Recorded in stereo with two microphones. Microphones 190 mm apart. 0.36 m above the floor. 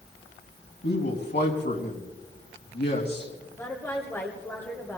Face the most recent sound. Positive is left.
turn(degrees=10)  # may be behind; listen again after turning